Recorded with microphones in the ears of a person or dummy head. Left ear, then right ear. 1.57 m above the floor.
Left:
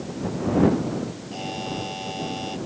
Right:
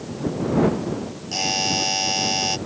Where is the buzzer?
60° right (ahead or behind).